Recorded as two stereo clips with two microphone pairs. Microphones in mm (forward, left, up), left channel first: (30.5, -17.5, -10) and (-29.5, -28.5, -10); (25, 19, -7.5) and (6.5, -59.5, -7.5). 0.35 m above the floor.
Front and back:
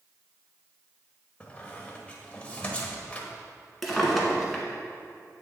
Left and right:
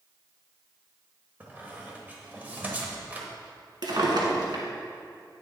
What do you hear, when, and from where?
1.4 s a squeak: 50° right, 1.1 m
3.8 s a drawer: 75° right, 1.4 m